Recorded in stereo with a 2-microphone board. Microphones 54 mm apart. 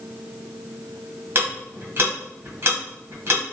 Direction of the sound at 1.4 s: 40° right (ahead or behind).